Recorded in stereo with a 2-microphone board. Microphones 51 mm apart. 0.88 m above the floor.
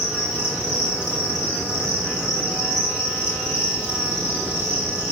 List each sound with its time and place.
0.0 s an insect: 20° right (ahead or behind), 7.5 m